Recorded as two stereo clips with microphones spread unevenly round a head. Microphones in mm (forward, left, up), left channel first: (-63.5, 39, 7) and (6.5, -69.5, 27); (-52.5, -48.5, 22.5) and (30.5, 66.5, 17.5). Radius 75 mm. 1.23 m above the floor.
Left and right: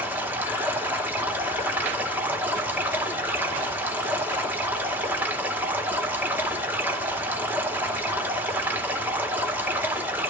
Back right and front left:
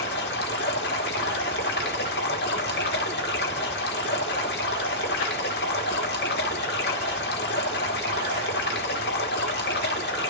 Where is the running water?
130° right, 1.4 m.